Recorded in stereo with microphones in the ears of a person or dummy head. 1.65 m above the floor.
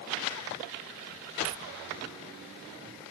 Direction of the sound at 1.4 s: 45° right (ahead or behind).